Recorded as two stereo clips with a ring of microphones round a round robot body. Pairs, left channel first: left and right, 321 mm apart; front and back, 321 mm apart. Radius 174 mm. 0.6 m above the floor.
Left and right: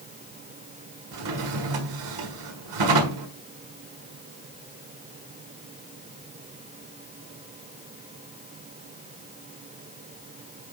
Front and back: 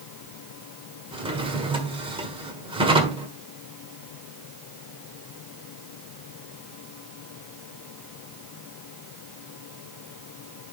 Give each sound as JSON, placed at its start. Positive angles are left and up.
{"t": 1.1, "sound": "a drawer", "azimuth_deg": -105, "distance_m": 1.5}